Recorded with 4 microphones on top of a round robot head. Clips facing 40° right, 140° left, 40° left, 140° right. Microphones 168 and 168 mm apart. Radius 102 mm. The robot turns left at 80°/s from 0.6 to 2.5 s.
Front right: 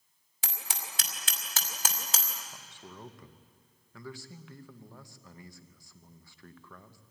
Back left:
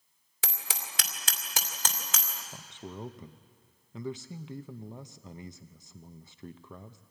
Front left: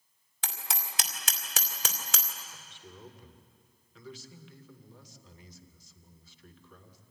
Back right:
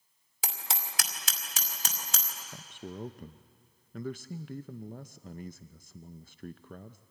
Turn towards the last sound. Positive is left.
turn(degrees=-155)